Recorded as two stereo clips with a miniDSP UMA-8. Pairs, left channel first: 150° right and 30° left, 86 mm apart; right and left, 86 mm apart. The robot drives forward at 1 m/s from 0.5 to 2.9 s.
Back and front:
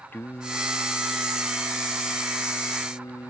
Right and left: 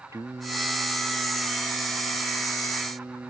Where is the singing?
145° left; by 3.3 s 155° left.